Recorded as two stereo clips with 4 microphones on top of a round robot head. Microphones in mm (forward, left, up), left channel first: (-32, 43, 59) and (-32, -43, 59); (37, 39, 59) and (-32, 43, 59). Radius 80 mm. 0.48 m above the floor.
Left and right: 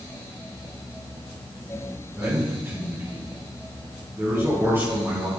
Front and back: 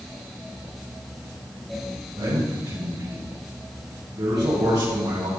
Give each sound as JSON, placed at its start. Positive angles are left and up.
{"t": 2.2, "sound": "a man speaking", "azimuth_deg": -155, "distance_m": 6.5}